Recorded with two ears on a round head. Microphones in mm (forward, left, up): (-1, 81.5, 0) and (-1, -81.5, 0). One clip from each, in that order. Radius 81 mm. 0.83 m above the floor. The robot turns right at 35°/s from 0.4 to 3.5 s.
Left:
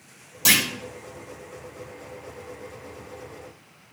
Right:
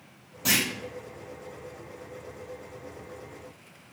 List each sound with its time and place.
0.5 s a clunk: 75° left (ahead or behind), 3 m; by 0.7 s 80° left, 3 m